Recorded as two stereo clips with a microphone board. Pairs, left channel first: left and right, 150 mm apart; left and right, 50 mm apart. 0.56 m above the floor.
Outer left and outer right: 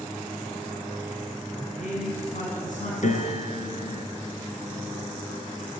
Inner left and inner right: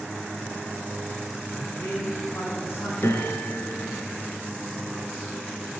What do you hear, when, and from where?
1.6 s a man speaking: 60° left (ahead or behind), 6 m
3.0 s a piano: 60° left (ahead or behind), 3.5 m